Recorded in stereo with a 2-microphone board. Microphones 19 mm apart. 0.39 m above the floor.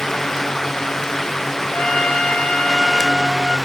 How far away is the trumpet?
About 1.6 m.